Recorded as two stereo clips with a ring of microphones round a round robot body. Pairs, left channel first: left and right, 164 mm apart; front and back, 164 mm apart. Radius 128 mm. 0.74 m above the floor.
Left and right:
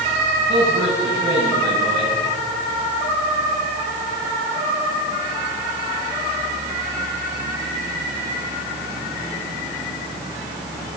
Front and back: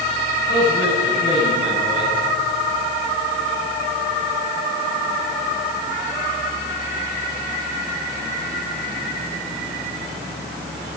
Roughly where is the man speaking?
Ahead.